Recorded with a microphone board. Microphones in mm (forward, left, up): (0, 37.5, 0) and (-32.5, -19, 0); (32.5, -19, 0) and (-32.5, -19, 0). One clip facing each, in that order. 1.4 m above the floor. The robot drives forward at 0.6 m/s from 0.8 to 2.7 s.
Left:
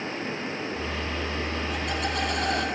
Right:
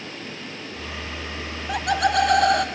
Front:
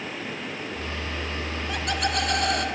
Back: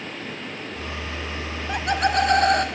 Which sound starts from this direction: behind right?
Laughter, at 1.7 s.